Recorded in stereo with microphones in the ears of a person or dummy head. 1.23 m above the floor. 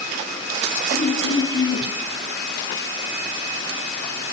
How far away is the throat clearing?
About 7.5 m.